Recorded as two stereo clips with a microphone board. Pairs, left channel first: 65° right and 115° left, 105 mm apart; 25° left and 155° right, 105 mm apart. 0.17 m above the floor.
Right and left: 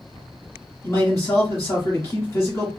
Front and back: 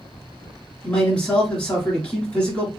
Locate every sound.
0.8 s a man speaking: 45° right, 1.4 m